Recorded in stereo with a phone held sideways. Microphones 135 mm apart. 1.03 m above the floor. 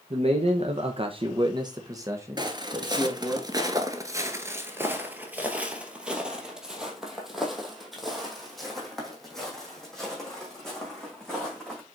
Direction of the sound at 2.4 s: 30° right (ahead or behind).